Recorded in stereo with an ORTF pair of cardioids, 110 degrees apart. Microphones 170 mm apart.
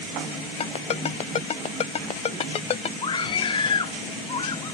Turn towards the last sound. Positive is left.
turn(degrees=30)